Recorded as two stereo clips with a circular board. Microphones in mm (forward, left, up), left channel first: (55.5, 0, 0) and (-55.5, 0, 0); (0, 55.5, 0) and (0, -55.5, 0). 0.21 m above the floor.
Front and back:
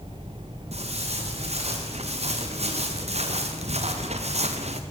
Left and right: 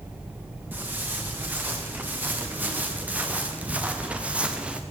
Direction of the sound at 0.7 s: 165° right.